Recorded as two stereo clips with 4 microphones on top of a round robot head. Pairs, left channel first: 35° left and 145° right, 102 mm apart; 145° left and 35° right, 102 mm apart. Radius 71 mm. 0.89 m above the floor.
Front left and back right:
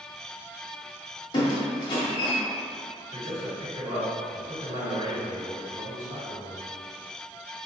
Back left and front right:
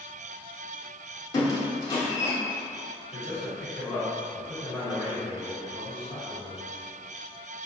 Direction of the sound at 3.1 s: 165° left.